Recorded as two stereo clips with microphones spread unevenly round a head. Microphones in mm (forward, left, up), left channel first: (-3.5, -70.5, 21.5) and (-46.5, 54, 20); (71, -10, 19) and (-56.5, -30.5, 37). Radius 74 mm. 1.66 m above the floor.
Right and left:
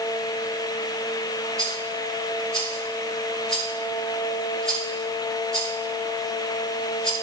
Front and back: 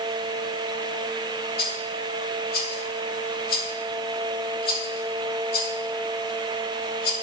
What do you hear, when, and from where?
1.6 s a rattle: 15° left, 2.5 m